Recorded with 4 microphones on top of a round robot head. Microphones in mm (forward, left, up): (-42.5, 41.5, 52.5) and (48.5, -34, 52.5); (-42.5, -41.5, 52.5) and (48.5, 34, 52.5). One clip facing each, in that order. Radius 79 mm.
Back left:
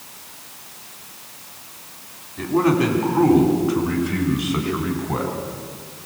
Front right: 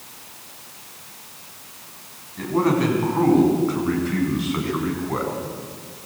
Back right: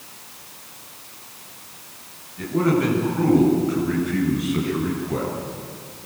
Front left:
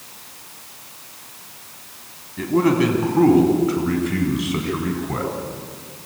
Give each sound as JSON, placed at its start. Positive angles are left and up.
{"t": 2.4, "sound": "a man speaking", "azimuth_deg": 55, "distance_m": 5.5}